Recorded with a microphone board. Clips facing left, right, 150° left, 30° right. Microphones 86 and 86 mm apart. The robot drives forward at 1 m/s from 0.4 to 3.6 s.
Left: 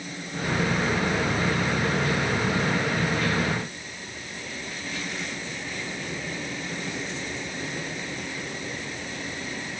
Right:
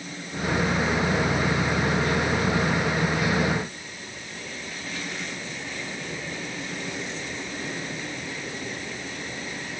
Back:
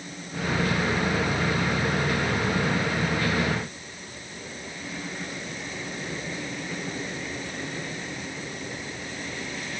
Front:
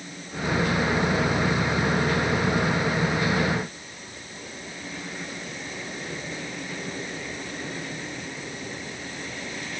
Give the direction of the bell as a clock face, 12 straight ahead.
No bell in this recording.